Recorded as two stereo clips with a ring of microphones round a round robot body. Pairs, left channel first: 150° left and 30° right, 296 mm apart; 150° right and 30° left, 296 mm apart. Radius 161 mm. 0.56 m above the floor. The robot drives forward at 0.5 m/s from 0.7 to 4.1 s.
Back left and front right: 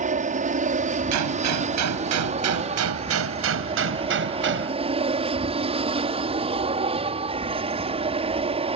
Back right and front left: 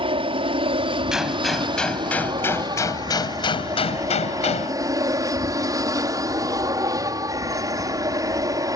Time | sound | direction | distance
0.0 | an aircraft | 15° right | ?
1.1 | a gunshot | 60° right | ?